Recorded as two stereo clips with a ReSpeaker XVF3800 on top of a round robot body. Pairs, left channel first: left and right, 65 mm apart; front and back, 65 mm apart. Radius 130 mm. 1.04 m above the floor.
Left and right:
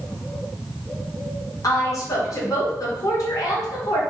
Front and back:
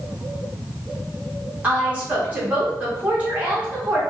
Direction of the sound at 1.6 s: 110° left.